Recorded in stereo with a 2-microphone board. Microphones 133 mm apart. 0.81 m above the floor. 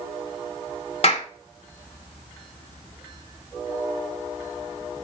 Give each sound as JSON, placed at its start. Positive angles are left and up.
{"t": 1.0, "sound": "a clap", "side_deg": 50, "distance_m": 1.8}